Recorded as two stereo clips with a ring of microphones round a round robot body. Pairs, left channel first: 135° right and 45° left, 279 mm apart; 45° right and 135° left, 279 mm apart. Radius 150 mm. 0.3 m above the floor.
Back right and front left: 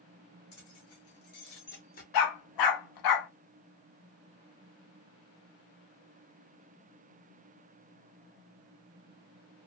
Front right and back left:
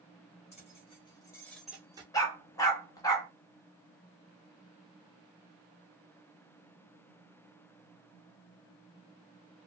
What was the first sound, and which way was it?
Keys jangling, 110° right.